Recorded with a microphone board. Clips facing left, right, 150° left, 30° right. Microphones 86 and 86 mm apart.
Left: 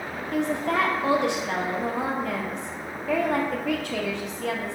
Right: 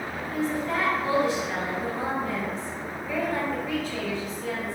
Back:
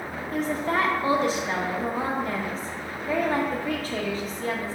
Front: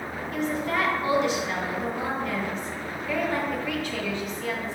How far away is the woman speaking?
About 1.2 m.